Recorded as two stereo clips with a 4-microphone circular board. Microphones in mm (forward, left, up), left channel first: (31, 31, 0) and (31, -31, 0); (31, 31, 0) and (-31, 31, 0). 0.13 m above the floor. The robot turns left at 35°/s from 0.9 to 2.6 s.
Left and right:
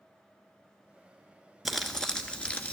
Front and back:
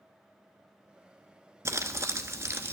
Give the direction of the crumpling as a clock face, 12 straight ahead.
6 o'clock.